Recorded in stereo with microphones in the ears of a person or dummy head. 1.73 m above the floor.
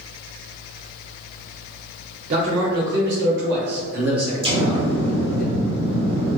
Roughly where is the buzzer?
No buzzer in this recording.